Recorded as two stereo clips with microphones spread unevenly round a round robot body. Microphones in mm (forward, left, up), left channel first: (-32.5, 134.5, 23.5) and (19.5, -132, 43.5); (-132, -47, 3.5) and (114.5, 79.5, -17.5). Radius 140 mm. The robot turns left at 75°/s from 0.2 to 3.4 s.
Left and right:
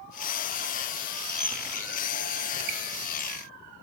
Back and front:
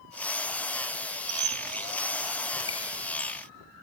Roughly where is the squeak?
Ahead.